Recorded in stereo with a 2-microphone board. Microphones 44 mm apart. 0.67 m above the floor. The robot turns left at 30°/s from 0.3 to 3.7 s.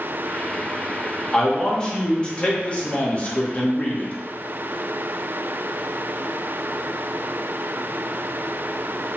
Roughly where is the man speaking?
Centre.